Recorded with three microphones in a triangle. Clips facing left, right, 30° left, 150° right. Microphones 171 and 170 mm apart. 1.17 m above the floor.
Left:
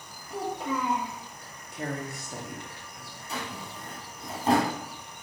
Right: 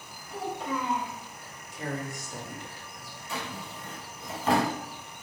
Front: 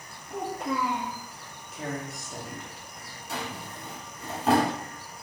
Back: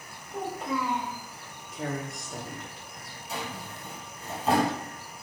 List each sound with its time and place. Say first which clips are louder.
0.3 s a child speaking: left 2 dB, front 1 dB; 40° left, 2 m
1.7 s a woman speaking: left 1 dB, back 1 dB; 120° left, 2 m
3.3 s a drawer: even, front 1 dB; 40° left, 3 m